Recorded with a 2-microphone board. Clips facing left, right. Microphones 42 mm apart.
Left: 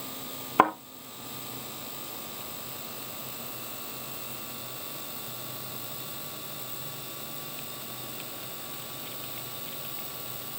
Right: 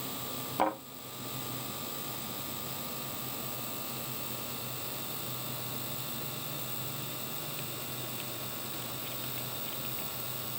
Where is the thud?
55° left (ahead or behind), 4 m.